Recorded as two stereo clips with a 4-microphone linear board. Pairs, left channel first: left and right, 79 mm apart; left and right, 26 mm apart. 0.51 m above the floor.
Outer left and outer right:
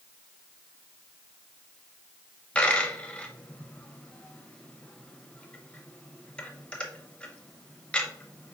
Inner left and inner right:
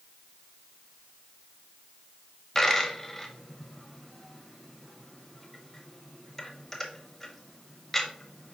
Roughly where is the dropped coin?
Centre.